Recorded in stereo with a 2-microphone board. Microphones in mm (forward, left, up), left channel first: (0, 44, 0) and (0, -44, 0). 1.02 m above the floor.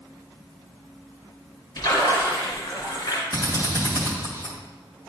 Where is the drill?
40° left (ahead or behind), 1.7 m.